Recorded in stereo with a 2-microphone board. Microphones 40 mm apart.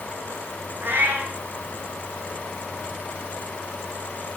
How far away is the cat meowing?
About 3.5 m.